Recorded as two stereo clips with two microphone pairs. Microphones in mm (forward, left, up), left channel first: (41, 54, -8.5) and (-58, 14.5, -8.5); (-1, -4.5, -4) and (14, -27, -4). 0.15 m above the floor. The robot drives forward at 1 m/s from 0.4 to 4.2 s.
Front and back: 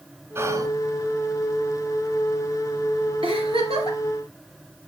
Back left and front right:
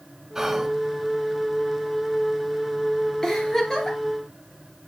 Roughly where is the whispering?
Behind right.